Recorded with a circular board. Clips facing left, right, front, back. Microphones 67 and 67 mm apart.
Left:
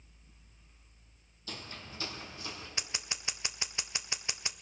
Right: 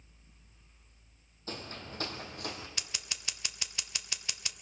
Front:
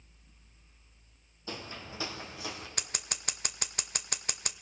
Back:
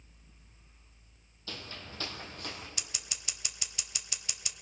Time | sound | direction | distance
1.5 | footsteps | 60° right | 1.8 m
2.8 | scissors | 30° left | 0.7 m